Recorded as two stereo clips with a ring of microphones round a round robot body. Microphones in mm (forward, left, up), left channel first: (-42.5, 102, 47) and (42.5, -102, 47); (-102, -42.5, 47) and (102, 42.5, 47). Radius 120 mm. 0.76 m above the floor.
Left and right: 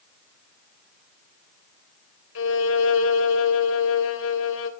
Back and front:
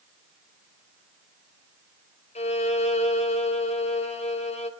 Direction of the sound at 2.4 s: 140° left.